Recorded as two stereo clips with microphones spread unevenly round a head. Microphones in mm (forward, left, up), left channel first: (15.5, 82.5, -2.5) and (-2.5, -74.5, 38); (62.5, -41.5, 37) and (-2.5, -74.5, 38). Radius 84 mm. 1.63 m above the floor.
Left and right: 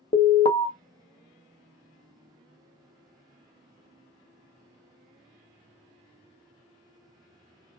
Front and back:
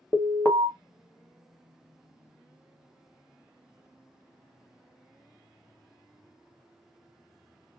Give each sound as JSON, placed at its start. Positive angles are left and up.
{"t": 0.1, "sound": "an alarm", "azimuth_deg": 40, "distance_m": 0.6}